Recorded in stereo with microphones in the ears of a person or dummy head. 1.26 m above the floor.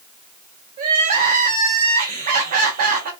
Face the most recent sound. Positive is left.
turn(degrees=-45)  # may be behind; listen again after turning